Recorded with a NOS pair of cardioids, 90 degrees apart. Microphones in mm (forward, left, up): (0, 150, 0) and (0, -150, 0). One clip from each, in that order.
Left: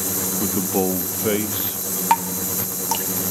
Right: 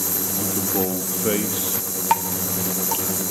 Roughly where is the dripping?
Ahead.